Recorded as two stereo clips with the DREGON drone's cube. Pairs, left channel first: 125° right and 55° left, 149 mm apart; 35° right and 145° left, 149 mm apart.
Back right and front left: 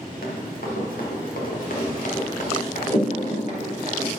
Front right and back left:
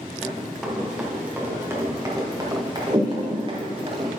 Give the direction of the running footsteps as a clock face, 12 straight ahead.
4 o'clock.